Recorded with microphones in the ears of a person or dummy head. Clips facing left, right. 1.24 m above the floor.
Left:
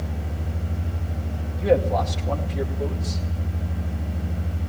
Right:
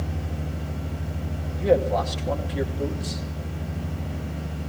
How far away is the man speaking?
About 2 m.